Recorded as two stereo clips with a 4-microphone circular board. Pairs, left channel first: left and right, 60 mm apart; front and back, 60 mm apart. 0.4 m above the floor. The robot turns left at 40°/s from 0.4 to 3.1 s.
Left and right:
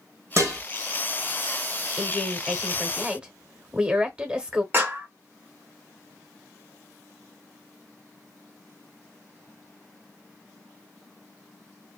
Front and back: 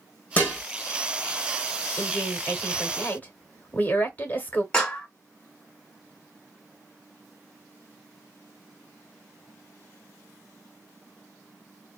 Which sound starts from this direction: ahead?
A woman speaking, at 2.0 s.